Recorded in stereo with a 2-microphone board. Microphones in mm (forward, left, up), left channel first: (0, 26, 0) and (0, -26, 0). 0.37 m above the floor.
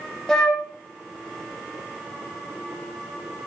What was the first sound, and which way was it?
A flute, 10° left (ahead or behind).